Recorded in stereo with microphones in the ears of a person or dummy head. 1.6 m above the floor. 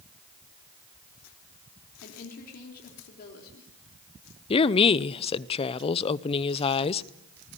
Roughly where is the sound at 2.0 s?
Left.